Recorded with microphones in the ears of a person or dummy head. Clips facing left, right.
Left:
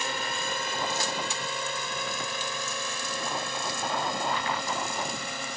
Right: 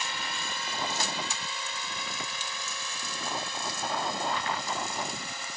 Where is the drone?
50° left (ahead or behind); by 5.6 s 55° left (ahead or behind).